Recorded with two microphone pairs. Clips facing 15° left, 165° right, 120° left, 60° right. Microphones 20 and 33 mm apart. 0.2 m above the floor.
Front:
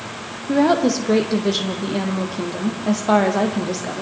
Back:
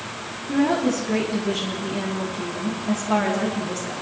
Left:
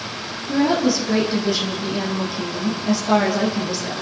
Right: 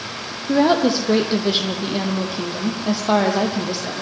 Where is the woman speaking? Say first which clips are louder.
Front 4 dB, right 2 dB; 20° right, 7.5 m; by 4.0 s 10° left, 7.5 m.